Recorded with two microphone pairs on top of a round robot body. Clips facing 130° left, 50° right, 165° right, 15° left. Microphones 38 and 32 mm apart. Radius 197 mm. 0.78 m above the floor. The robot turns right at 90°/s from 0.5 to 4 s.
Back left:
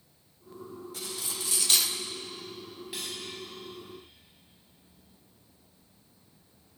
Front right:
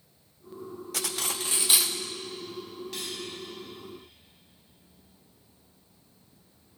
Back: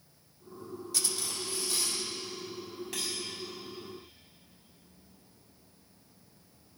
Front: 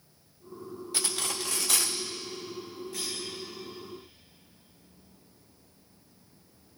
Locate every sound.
0.9 s cutlery clinking: 45° right, 0.6 m; by 2.0 s 50° left, 0.6 m
2.9 s cutlery clinking: 155° right, 4 m; by 3.2 s 130° right, 4 m